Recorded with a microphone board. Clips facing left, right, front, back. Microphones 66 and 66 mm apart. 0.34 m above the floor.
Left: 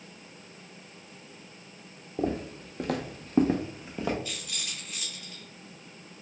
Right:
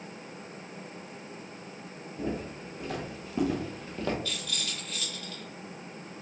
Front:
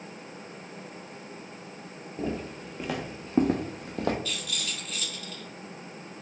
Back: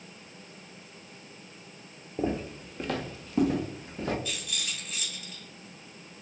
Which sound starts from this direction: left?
Footsteps, at 2.2 s.